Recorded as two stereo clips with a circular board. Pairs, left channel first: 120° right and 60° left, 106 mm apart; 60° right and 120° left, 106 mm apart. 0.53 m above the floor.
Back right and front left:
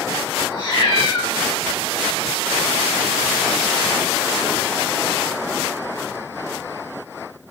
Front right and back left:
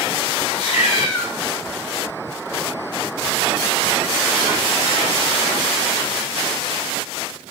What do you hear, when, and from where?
0.5 s a cat meowing: 60° right, 5.5 m